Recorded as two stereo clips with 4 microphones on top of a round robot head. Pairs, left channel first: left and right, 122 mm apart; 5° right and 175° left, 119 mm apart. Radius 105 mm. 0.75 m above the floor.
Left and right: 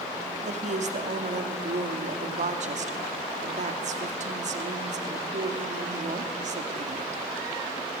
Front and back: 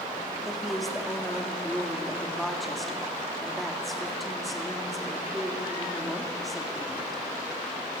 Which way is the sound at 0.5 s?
90° right.